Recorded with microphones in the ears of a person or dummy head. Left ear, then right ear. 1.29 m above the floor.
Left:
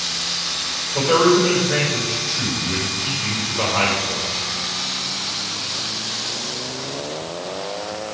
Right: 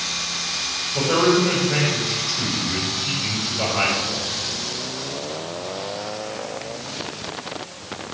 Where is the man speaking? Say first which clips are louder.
Left 3 dB; 60° left (ahead or behind), 6.5 m.